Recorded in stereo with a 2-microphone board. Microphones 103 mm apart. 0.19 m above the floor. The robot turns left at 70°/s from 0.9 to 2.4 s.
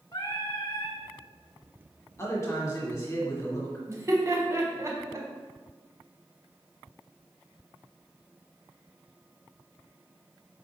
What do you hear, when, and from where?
0.1 s singing: 45° left (ahead or behind), 0.8 m; by 1.0 s 50° left (ahead or behind), 0.8 m
2.2 s a man speaking: 30° left (ahead or behind), 1.6 m
3.9 s laughter: 30° right (ahead or behind), 1.2 m